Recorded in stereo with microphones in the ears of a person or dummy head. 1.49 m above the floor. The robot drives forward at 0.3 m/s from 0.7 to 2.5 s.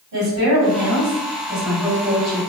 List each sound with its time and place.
0.1 s a woman speaking: 65° right (ahead or behind), 1.6 m; by 2.4 s 55° right (ahead or behind), 1.9 m